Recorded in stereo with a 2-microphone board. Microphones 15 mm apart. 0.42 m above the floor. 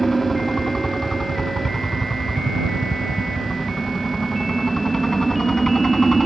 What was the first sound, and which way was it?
A helicopter, 30° left (ahead or behind).